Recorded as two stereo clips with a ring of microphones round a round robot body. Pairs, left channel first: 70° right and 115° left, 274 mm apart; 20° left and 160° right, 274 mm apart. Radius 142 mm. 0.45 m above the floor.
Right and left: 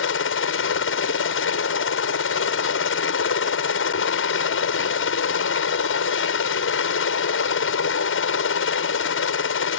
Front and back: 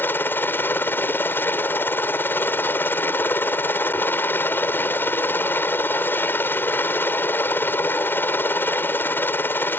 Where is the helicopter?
55° right.